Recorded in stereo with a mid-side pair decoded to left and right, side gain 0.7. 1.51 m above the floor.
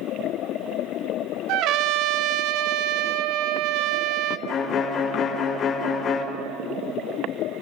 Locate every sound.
1.5 s a trumpet: 60° right, 0.6 m
4.5 s a violin: 50° left, 2.5 m